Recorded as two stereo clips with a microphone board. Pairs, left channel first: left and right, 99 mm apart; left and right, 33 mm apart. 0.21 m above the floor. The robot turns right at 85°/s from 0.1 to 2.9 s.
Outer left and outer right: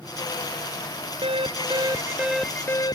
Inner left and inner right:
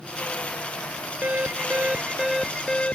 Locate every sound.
1.2 s an alarm: 100° right; by 3.0 s 45° left